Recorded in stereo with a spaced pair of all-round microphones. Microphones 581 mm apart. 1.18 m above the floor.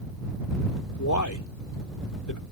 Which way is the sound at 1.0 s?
30° left (ahead or behind).